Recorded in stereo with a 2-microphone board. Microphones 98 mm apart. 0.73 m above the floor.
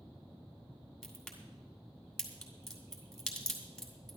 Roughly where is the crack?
Centre.